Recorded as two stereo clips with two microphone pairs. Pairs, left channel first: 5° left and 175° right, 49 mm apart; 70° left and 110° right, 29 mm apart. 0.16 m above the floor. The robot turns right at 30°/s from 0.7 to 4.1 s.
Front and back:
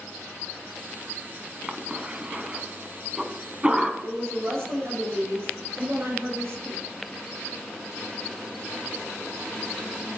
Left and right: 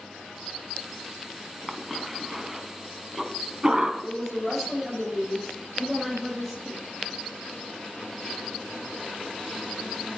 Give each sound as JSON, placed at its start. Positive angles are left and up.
{"t": 1.7, "sound": "a cough", "azimuth_deg": 165, "distance_m": 1.1}
{"t": 4.0, "sound": "a woman speaking", "azimuth_deg": 155, "distance_m": 4.5}